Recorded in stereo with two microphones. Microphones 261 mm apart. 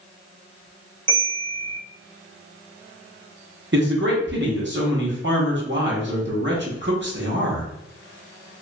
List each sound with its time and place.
1.1 s a bell: 30° right (ahead or behind), 1.7 m
3.7 s a man speaking: 45° right (ahead or behind), 0.9 m